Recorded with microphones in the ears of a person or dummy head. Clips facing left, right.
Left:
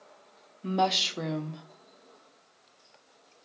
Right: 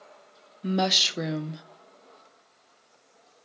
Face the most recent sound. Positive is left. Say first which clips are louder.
# right 1 dB
turn(degrees=-20)  # may be behind; listen again after turning